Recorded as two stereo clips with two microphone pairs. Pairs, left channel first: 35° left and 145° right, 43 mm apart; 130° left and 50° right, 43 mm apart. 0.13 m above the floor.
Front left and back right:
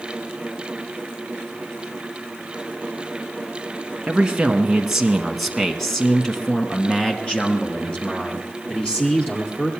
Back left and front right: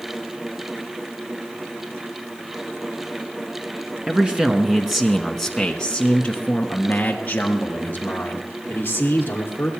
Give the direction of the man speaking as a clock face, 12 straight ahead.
3 o'clock.